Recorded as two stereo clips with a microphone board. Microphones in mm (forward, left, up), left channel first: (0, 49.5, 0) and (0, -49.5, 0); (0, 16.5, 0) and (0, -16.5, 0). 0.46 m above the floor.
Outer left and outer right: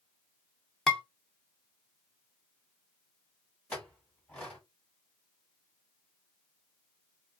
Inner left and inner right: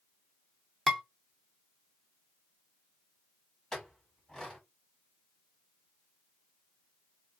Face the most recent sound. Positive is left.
turn(degrees=15)  # may be behind; listen again after turning